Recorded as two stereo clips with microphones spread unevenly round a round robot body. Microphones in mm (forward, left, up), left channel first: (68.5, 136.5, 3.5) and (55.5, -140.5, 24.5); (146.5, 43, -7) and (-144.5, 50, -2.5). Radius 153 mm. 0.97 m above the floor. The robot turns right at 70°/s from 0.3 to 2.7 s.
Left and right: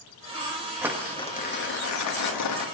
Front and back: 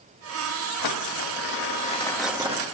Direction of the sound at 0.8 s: 10° right.